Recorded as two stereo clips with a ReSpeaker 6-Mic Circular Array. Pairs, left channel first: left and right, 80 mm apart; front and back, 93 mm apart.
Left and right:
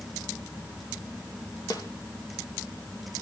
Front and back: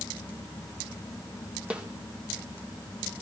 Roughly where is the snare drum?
Left.